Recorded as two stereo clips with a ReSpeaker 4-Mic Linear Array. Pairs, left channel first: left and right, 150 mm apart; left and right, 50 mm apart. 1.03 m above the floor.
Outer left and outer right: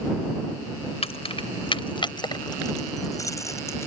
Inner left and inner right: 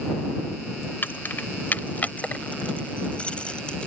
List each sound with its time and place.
1.0 s keys jangling: 45° left (ahead or behind); by 3.9 s 20° left (ahead or behind)